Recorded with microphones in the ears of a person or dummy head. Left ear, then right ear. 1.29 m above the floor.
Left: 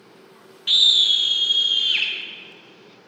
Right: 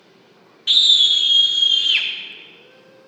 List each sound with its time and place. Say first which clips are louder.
0.7 s a scream: right 2 dB; 5° right (ahead or behind), 0.5 m; by 2.1 s 15° right (ahead or behind), 1.4 m